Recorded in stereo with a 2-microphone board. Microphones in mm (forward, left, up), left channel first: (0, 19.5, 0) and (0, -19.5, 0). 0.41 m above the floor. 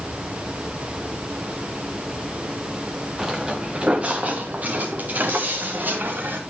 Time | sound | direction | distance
3.2 | footsteps | 15° right (ahead or behind) | 1.9 m